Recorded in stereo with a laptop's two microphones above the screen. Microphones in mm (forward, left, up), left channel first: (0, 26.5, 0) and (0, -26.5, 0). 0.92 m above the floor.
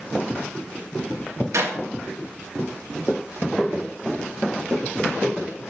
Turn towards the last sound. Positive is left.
turn(degrees=-75)  # may be behind; listen again after turning